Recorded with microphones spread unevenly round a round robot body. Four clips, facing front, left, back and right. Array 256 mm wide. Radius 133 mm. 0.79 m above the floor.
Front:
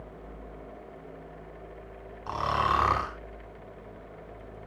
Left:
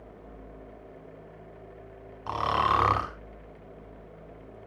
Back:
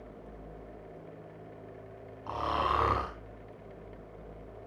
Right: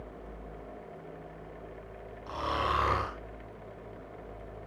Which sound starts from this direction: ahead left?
Snoring, at 2.3 s.